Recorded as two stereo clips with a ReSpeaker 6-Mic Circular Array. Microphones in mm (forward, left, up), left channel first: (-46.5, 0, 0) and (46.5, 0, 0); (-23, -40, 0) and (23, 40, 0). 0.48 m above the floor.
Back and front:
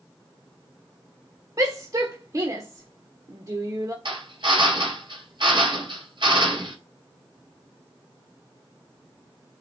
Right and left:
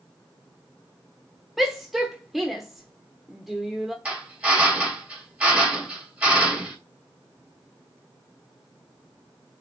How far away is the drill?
About 3 m.